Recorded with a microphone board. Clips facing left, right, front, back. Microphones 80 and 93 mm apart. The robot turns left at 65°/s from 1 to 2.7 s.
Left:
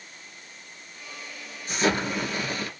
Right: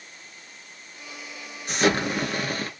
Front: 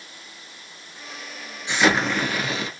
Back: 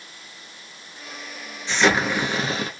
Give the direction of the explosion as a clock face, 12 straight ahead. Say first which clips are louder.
Right 2 dB, even; 2 o'clock.